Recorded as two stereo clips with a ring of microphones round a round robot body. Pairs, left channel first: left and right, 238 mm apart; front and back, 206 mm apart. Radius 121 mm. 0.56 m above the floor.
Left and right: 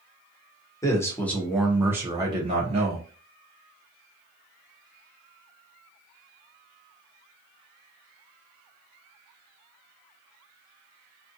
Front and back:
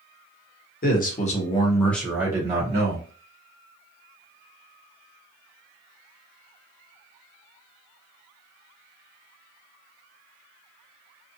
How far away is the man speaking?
About 1.0 m.